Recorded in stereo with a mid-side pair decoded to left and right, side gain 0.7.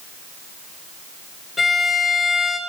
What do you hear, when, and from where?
1.6 s a violin: 20° left, 6 m